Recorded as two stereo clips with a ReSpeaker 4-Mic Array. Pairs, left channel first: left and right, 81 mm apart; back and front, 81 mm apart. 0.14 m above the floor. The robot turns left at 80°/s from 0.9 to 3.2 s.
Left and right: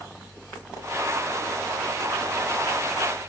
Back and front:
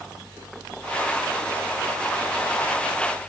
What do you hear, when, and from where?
Only background noise.